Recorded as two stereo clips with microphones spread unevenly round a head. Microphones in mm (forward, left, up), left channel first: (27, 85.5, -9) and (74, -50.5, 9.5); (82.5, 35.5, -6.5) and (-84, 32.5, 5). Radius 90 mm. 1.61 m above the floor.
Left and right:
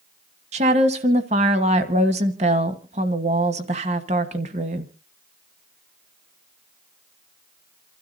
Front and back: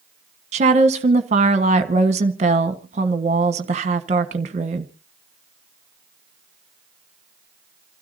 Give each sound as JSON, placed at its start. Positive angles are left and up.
{"t": 0.5, "sound": "a woman speaking", "azimuth_deg": -125, "distance_m": 1.2}